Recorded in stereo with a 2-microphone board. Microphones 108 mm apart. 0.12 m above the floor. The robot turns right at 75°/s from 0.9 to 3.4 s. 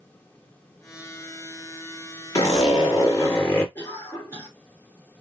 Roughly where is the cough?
Left.